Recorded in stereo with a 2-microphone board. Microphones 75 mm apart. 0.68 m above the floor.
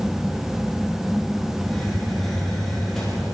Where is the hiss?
5° left (ahead or behind), 7.5 m.